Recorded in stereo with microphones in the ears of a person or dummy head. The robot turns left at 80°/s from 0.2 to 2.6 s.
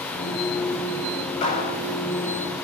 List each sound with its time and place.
1.4 s a clap: 35° left (ahead or behind), 8.5 m; by 1.8 s 65° left (ahead or behind), 8.5 m